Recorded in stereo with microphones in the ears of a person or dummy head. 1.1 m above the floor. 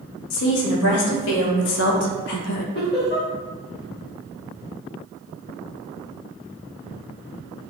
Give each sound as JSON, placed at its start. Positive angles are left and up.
{"t": 0.3, "sound": "a woman speaking", "side_deg": 65, "distance_m": 1.9}
{"t": 2.8, "sound": "laughter", "side_deg": 45, "distance_m": 2.0}